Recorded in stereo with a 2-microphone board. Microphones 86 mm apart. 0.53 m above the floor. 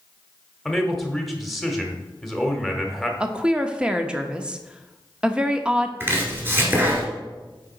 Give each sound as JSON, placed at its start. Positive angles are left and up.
{"t": 0.7, "sound": "a man speaking", "side_deg": 0, "distance_m": 1.3}
{"t": 3.2, "sound": "a woman speaking", "side_deg": -10, "distance_m": 0.6}
{"t": 6.0, "sound": "chopping", "side_deg": -25, "distance_m": 1.8}